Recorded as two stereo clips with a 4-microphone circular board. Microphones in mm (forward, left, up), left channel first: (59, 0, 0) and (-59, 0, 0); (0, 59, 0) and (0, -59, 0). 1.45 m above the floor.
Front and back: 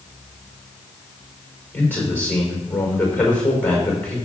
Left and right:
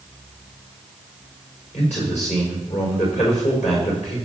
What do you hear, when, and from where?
1.7 s a man speaking: 75° left, 4.5 m